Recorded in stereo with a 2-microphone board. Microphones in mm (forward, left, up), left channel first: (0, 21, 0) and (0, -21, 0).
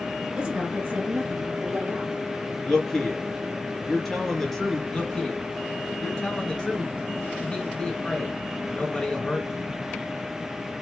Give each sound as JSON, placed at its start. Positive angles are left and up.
{"t": 0.4, "sound": "a woman speaking", "side_deg": -25, "distance_m": 1.6}
{"t": 2.6, "sound": "a man speaking", "side_deg": 0, "distance_m": 2.5}
{"t": 4.9, "sound": "a man speaking", "side_deg": 15, "distance_m": 1.3}